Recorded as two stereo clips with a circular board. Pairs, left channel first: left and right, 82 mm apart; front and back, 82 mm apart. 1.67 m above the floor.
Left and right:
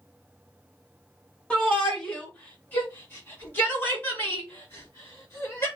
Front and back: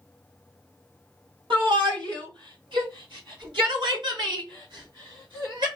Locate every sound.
1.5 s a shout: 170° left, 3 m; by 5.7 s 145° left, 5 m